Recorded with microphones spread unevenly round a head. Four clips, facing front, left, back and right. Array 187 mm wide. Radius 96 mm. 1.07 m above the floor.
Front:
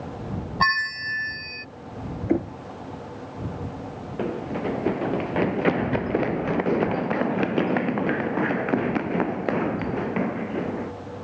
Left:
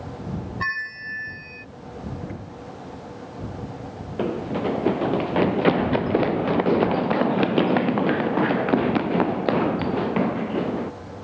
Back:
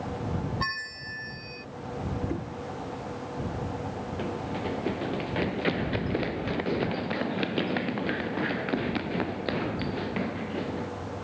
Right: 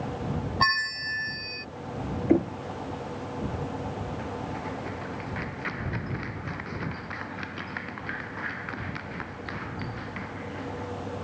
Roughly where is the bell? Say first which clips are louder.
Right 7 dB, front 10 dB; ahead.